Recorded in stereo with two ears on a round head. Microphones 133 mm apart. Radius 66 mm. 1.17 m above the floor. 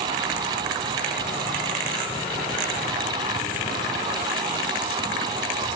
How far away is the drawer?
No drawer in this recording.